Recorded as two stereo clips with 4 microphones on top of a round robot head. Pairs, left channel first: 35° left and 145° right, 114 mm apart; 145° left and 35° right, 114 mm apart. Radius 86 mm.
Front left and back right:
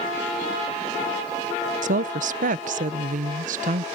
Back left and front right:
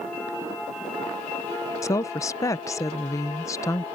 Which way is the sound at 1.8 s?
150° right.